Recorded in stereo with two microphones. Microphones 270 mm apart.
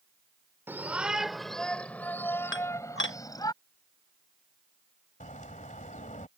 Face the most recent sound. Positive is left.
turn(degrees=30)  # may be behind; listen again after turning